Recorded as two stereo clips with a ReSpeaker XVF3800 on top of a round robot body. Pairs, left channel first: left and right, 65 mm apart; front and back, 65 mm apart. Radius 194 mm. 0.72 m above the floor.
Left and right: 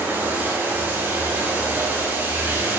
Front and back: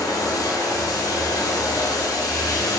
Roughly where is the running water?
Ahead right.